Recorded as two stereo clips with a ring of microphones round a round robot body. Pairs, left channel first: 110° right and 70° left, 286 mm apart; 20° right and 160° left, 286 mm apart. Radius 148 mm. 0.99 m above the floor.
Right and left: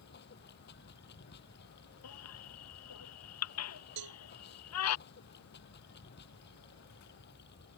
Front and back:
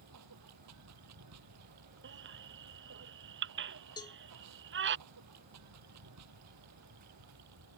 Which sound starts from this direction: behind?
Running water, at 0.0 s.